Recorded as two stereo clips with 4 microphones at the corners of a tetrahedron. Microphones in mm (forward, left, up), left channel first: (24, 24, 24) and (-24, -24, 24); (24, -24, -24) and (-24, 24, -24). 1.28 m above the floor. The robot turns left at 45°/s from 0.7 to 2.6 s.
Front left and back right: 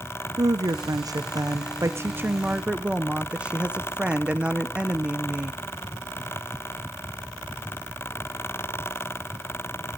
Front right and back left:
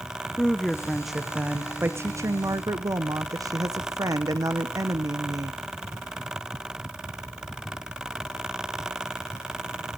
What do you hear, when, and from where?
0.4 s a woman speaking: 120° right, 0.8 m; by 5.6 s 150° left, 0.8 m